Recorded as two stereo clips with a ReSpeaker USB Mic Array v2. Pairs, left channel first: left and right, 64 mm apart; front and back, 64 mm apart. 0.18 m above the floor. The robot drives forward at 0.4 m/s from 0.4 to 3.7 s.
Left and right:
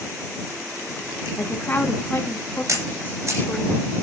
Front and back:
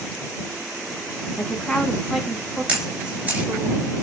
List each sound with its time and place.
1.4 s a woman speaking: 75° left, 1.6 m; by 3.7 s 130° left, 1.7 m
2.7 s a camera shutter: 115° right, 3 m; by 3.5 s 120° right, 3 m